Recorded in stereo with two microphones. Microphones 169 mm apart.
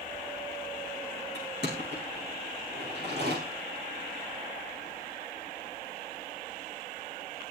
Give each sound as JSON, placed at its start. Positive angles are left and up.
{"t": 1.4, "sound": "crushing", "side_deg": -85, "distance_m": 9.5}